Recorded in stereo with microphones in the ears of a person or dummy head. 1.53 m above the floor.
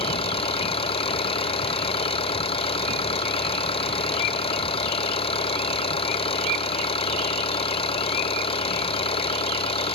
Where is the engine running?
25° left (ahead or behind).